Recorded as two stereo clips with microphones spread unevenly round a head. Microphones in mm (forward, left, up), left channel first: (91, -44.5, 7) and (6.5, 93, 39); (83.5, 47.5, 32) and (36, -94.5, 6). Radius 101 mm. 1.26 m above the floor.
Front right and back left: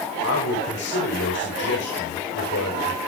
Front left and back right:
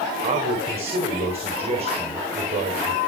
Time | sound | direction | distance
0.2 | a man speaking | 60° right | 4.5 m